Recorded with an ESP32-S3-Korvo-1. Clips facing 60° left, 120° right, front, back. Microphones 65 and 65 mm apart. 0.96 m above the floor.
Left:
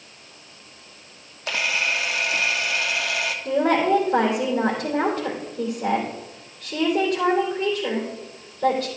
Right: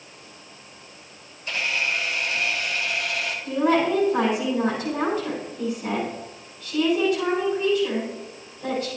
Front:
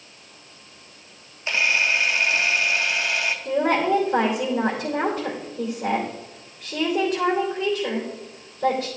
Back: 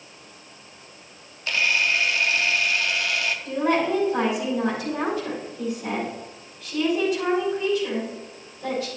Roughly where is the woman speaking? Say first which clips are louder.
Left 1 dB, front 2 dB; ahead left.